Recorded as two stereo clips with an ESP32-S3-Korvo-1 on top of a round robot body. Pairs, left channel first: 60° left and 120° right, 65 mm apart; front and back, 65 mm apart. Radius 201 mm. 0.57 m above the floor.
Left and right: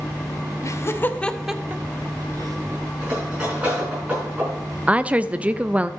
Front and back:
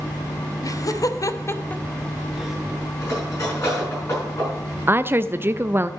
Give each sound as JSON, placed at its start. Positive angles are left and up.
{"t": 0.6, "sound": "laughter", "azimuth_deg": 25, "distance_m": 1.5}
{"t": 3.0, "sound": "cutlery clinking", "azimuth_deg": -45, "distance_m": 6.0}
{"t": 4.9, "sound": "a woman speaking", "azimuth_deg": -175, "distance_m": 0.6}